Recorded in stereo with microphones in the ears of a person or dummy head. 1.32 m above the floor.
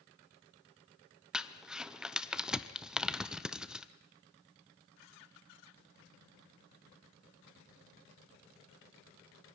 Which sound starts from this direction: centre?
Crumpling, at 1.3 s.